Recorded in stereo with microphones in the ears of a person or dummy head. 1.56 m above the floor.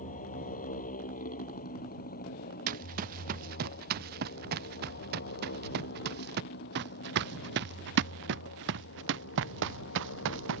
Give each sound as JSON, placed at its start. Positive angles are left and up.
{"t": 0.0, "sound": "a motorcycle", "side_deg": 35}
{"t": 2.7, "sound": "running footsteps", "side_deg": -45}